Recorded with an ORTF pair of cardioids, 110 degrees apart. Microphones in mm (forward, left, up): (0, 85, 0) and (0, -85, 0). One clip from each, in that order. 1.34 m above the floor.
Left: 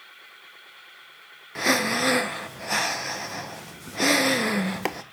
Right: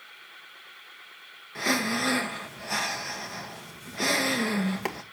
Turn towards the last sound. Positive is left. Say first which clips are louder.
# left 4 dB
turn(degrees=25)